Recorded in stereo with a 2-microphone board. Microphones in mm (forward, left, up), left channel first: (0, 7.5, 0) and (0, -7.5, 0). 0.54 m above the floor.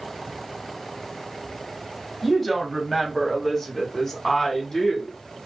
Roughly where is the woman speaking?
Centre.